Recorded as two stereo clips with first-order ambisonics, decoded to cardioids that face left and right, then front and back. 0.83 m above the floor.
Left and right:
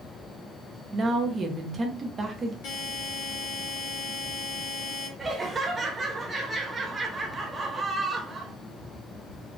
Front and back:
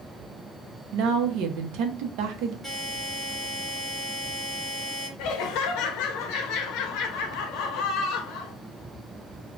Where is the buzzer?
100° left, 1.8 m.